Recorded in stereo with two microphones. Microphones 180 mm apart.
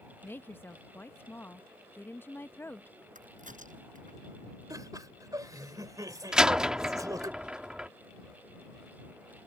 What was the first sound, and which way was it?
A woman speaking, 10° left (ahead or behind).